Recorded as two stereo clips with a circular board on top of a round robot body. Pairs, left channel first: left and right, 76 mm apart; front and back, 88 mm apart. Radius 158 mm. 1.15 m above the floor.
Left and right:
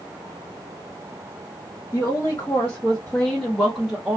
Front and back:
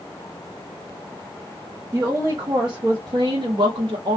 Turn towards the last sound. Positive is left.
turn(degrees=-165)